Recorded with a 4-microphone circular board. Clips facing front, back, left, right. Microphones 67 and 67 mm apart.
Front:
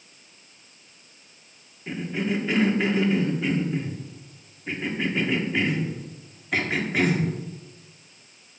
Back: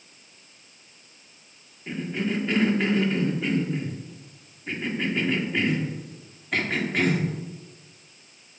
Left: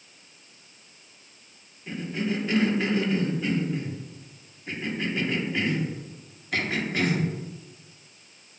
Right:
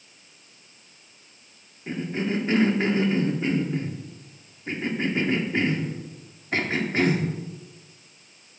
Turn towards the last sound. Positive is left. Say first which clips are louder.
# front 1 dB, right 2 dB
turn(degrees=-80)